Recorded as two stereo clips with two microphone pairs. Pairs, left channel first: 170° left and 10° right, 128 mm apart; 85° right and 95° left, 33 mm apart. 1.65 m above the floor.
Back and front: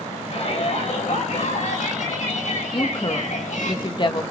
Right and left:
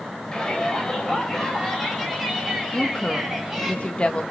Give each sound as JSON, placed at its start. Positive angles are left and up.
{"t": 0.3, "sound": "a shout", "azimuth_deg": -155, "distance_m": 8.5}
{"t": 2.7, "sound": "a woman speaking", "azimuth_deg": -140, "distance_m": 2.0}